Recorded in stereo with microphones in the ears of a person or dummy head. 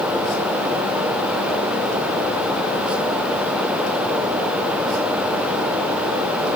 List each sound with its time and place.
Only background noise.